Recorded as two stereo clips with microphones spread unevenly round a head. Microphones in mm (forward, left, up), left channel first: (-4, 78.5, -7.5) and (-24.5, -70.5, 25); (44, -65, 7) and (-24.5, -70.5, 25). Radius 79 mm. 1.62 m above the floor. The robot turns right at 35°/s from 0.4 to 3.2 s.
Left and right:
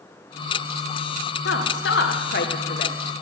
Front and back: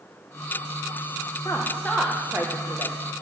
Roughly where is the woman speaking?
Left.